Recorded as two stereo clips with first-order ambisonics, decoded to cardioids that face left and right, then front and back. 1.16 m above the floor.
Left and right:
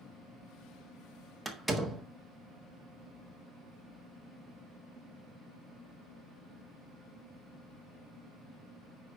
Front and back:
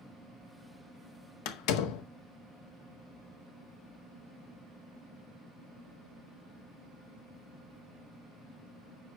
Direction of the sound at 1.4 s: Straight ahead.